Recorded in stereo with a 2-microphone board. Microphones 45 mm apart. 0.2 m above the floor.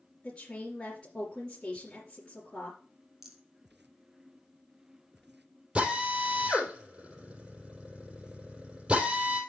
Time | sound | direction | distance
0.2 | a woman speaking | 15° left (ahead or behind) | 3.5 m
3.2 | a rattle | 10° right (ahead or behind) | 1.9 m
5.8 | a drill | 25° right (ahead or behind) | 3.5 m